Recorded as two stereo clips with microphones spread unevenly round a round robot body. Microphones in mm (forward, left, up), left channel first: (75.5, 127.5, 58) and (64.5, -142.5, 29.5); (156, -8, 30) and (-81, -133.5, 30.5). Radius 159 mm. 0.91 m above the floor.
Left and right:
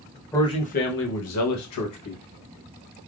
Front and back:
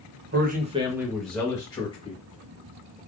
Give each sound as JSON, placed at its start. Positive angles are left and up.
{"t": 0.3, "sound": "a man speaking", "azimuth_deg": 175, "distance_m": 0.6}